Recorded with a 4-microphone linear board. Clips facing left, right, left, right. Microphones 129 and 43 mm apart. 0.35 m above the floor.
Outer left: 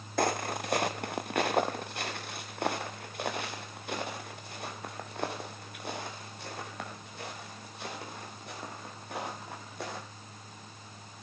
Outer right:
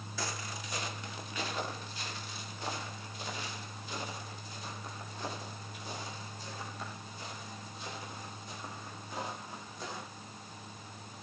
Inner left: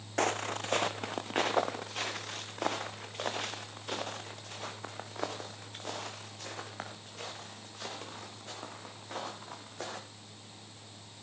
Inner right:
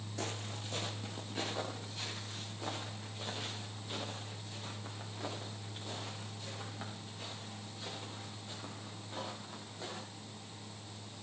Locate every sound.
0.2 s footsteps: 60° left (ahead or behind), 0.9 m; by 10.0 s 65° left (ahead or behind), 7 m